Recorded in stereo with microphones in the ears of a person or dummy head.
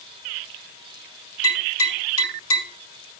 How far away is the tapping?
About 7 m.